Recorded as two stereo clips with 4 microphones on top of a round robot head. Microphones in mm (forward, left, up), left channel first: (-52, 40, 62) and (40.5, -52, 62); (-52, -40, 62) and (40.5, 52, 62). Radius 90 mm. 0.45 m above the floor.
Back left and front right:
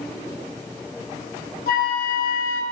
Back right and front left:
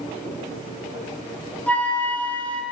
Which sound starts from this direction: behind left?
A flute, at 1.7 s.